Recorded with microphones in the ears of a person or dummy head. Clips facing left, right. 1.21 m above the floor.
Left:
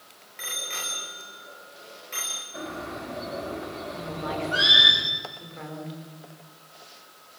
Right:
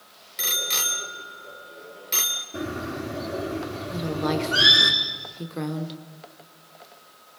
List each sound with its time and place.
0.4 s a bicycle bell: 60° right (ahead or behind), 3 m
2.5 s a bird: 35° right (ahead or behind), 4.5 m
3.9 s a woman speaking: 70° right (ahead or behind), 3 m